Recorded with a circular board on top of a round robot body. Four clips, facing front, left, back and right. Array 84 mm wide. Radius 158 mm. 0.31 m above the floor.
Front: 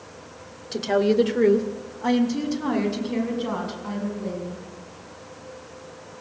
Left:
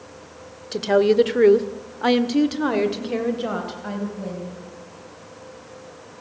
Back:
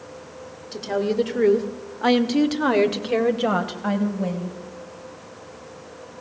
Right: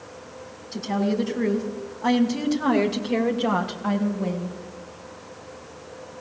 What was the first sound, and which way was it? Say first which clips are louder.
A woman speaking: left 8 dB, front 3 dB; 65° left.